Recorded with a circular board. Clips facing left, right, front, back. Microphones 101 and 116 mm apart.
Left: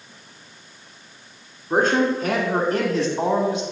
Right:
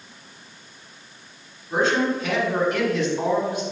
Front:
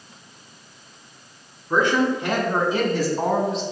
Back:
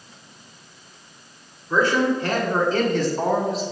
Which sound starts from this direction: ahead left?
A man speaking, at 1.7 s.